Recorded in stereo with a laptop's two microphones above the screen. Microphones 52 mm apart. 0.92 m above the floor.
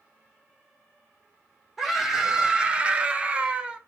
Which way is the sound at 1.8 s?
5° right (ahead or behind).